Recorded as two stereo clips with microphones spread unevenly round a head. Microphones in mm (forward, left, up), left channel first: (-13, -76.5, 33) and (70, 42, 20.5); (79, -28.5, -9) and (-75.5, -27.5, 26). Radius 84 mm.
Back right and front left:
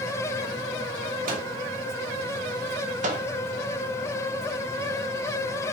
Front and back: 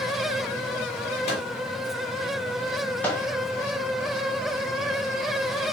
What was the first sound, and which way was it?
A microwave, 45° left.